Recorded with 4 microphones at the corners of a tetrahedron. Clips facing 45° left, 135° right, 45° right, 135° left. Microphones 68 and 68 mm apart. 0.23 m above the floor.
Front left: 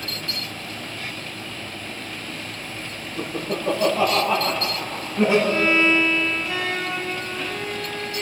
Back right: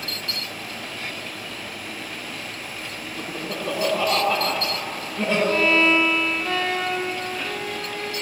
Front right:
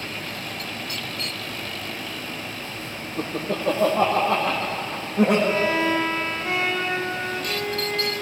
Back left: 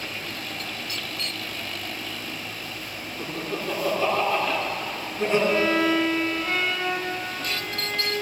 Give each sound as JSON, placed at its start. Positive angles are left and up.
{"t": 3.2, "sound": "laughter", "azimuth_deg": -40, "distance_m": 9.5}
{"t": 5.5, "sound": "a violin", "azimuth_deg": -115, "distance_m": 6.0}